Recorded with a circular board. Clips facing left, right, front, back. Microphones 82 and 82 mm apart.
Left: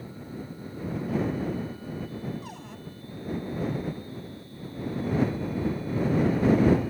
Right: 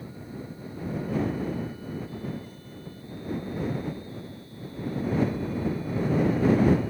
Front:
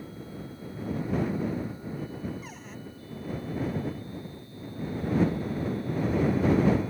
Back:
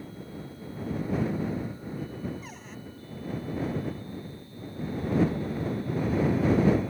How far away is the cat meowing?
I don't hear a cat meowing.